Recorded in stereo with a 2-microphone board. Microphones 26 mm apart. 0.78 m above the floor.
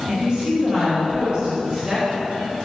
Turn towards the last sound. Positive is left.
turn(degrees=-25)  # may be behind; listen again after turning